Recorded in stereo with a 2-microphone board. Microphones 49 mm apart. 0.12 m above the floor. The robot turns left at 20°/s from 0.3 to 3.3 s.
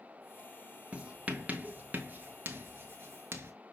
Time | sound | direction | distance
0.9 | writing | 20° right (ahead or behind) | 0.7 m